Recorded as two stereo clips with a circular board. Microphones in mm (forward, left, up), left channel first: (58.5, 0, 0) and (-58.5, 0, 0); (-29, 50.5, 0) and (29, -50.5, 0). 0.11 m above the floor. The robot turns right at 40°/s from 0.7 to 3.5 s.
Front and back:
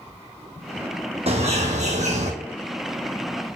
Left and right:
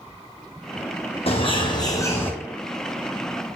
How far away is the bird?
About 1.3 m.